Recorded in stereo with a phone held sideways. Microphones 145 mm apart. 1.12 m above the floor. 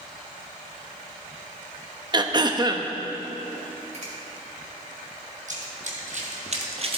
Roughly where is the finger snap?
Right.